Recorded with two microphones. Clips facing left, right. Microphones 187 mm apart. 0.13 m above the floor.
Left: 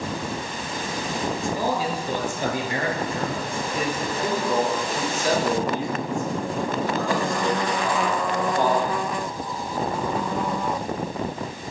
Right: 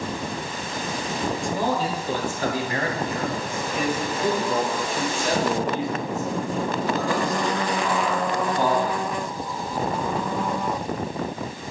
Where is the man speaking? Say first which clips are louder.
Right 1 dB; 5° left (ahead or behind), 2.0 m; by 9.0 s 50° left (ahead or behind), 6.5 m.